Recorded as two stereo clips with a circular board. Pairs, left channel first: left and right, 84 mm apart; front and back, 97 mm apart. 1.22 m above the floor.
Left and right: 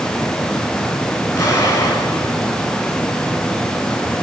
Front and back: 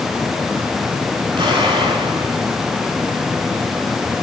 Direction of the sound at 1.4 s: 140° left.